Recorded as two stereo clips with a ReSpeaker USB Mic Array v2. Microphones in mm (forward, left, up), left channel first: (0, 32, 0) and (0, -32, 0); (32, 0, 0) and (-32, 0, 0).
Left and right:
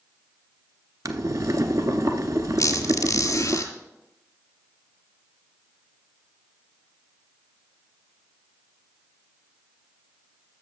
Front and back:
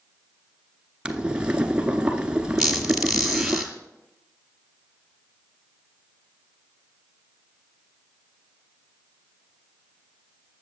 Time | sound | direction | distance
1.1 | boiling | 105° right | 0.7 m
2.6 | a squeak | 90° left | 1.9 m